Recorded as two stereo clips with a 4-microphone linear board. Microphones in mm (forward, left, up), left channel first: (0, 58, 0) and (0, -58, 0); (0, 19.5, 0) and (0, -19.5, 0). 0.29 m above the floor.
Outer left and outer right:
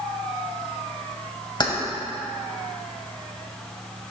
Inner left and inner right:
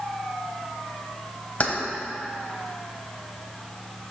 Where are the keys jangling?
40° left (ahead or behind), 1.0 m.